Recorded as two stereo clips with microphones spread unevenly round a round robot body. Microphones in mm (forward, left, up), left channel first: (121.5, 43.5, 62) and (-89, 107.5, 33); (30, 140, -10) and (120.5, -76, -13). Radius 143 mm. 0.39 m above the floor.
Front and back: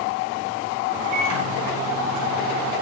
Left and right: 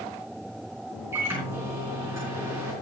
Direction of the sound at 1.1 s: 150° right.